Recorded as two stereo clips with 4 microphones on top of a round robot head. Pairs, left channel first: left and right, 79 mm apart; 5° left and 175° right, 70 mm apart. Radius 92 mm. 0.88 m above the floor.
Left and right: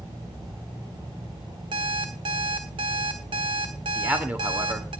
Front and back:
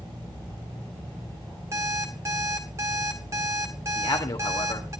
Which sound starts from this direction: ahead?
A man speaking, at 4.0 s.